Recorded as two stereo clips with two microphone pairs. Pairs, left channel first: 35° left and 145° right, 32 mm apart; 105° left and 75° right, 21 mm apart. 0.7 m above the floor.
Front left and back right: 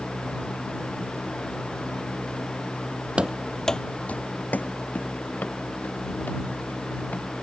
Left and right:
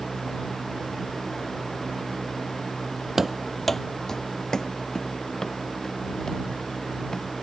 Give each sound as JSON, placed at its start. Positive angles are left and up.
{"t": 3.2, "sound": "running footsteps", "azimuth_deg": -140}